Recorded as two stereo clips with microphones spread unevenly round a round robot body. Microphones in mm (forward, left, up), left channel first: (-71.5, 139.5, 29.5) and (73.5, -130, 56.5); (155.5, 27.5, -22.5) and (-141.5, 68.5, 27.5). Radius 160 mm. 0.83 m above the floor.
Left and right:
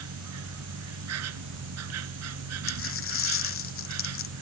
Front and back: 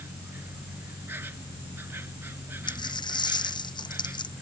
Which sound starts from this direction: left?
A dropped coin, at 2.7 s.